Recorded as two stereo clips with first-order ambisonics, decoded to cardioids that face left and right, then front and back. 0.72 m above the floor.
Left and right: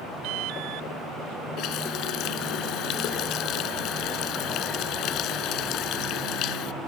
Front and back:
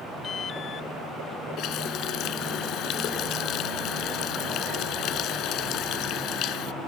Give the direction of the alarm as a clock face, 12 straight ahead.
2 o'clock.